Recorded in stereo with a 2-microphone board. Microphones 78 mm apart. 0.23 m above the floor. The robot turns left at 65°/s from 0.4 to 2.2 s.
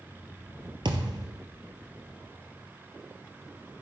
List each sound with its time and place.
0.8 s a thud: 90° right, 1.9 m; by 1.5 s 130° right, 1.9 m